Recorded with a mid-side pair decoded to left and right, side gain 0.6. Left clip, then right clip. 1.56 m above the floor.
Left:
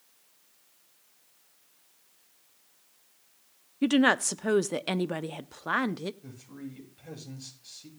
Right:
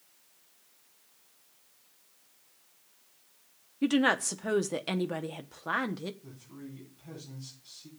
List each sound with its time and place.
3.8 s a woman speaking: 20° left, 0.8 m
6.2 s a man speaking: 65° left, 8 m